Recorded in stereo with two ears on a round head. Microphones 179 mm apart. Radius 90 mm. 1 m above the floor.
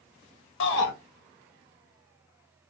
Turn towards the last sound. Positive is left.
turn(degrees=65)  # may be behind; listen again after turning